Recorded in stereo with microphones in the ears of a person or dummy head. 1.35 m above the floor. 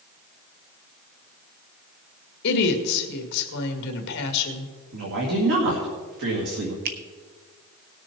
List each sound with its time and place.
2.4 s a woman speaking: 65° left (ahead or behind), 1.9 m
4.9 s a woman speaking: 65° right (ahead or behind), 2 m
6.8 s a finger snap: 55° right (ahead or behind), 0.9 m